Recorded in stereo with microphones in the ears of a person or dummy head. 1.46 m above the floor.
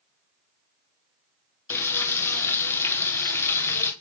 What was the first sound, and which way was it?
Frying, 15° left (ahead or behind).